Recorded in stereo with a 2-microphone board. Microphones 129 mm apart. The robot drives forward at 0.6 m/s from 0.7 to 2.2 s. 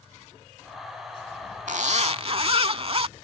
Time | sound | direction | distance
1.7 | a zipper | 70° right (ahead or behind) | ?